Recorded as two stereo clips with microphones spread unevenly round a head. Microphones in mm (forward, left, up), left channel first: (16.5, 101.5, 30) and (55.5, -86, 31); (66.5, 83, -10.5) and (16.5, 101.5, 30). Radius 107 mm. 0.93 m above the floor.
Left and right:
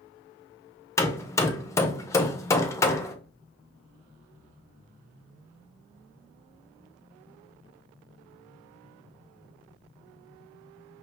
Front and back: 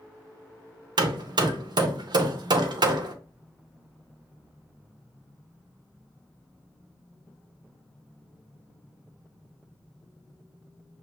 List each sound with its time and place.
1.0 s hammering: 170° left, 0.6 m